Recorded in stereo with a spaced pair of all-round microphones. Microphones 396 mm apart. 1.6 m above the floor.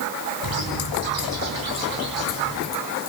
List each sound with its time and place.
0.4 s a bird: 55° right (ahead or behind), 5.5 m